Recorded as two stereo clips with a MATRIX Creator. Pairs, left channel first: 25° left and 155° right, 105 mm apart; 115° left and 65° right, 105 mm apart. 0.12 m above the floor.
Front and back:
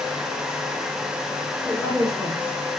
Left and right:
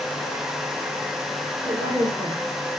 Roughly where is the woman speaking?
Ahead right.